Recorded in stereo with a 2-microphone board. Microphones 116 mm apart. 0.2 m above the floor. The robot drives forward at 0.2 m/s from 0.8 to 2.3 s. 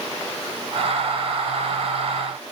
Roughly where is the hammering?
No hammering in this recording.